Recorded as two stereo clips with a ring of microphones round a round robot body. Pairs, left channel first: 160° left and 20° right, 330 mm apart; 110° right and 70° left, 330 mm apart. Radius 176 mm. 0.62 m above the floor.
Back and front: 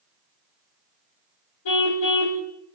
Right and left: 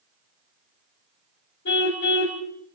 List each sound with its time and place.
1.6 s a car horn: 170° right, 2.5 m